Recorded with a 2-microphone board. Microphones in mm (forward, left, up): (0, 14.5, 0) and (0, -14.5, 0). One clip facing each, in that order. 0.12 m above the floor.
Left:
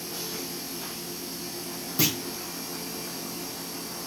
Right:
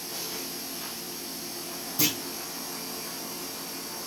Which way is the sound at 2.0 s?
20° left (ahead or behind).